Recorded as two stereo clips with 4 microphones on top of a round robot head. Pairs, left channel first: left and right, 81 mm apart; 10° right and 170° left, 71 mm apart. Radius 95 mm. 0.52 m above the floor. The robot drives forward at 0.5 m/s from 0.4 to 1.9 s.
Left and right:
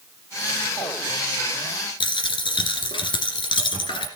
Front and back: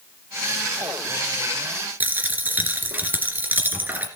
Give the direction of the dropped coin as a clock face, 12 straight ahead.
8 o'clock.